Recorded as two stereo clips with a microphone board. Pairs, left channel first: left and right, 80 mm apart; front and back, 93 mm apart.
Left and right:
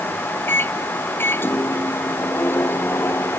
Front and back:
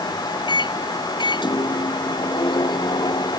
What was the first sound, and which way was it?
A microwave, 30° left.